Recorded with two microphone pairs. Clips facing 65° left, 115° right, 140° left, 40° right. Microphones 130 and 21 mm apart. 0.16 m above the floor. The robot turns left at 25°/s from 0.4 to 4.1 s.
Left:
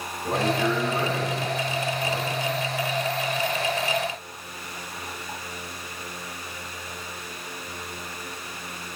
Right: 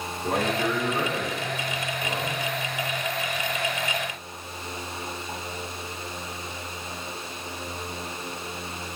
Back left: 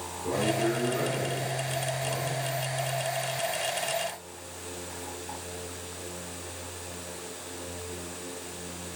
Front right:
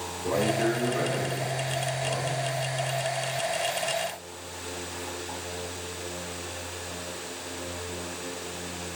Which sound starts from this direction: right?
A man speaking, at 0.2 s.